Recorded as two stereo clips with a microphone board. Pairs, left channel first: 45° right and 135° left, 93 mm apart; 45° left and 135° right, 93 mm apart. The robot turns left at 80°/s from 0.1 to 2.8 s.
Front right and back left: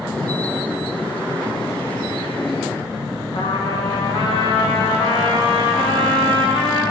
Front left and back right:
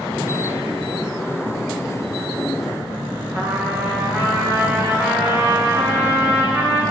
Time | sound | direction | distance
3.3 | a trumpet | 65° right | 9 m